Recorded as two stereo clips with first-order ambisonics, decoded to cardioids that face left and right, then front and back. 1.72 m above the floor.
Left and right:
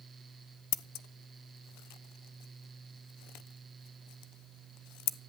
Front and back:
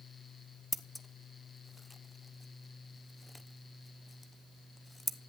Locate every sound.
0.7 s scissors: 85° left, 0.9 m